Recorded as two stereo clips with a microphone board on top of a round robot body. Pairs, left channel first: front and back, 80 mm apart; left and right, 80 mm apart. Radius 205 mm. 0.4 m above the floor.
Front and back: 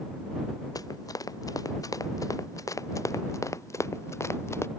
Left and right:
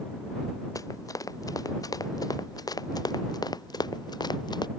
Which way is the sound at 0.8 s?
45° left.